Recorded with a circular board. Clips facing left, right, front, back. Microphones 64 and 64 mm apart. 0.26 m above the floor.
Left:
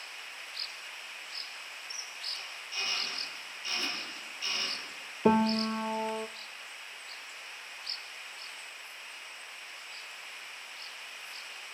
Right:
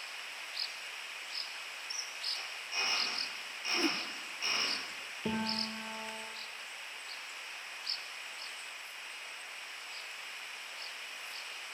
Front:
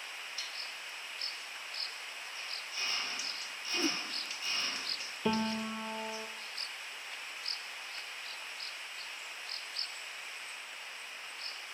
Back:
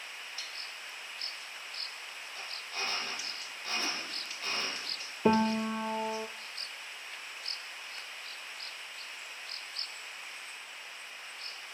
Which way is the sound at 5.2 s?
125° left.